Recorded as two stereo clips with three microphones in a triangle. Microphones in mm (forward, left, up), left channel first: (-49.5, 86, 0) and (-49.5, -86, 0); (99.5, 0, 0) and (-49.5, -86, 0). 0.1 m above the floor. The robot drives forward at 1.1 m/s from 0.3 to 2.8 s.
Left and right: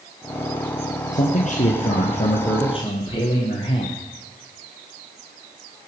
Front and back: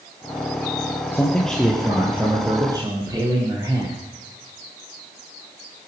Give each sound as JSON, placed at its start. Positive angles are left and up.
{"t": 1.1, "sound": "a man speaking", "azimuth_deg": 105, "distance_m": 2.0}